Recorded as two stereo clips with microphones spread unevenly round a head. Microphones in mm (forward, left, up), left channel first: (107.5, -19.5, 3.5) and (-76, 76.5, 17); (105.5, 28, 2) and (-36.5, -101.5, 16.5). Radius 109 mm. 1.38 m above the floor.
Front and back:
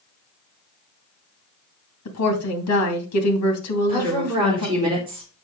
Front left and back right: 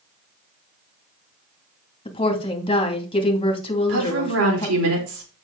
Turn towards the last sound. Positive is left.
turn(degrees=-135)